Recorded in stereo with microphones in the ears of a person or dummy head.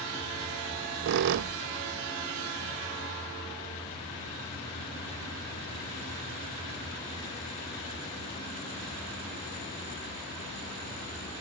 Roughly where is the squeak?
Right.